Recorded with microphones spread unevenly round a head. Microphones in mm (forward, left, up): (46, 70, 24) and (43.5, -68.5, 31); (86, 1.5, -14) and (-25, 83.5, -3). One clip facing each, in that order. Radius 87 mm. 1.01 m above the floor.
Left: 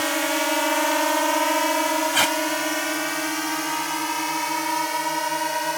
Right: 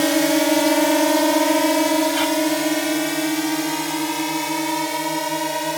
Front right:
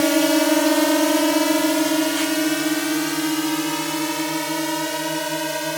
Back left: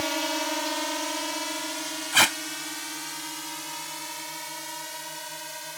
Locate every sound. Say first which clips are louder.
0.0 s a drone: right 7 dB, front right 13 dB; 50° right; by 5.8 s 30° right
2.1 s tape being pulled: right 4 dB, front right 6 dB; 140° left